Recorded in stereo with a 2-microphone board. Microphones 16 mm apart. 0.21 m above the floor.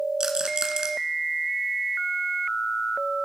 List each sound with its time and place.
0.2 s a rattle: 55° right (ahead or behind), 1.4 m